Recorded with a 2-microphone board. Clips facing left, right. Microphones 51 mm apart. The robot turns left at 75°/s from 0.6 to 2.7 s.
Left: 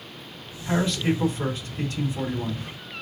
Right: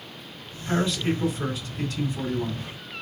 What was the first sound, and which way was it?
A man speaking, 140° left.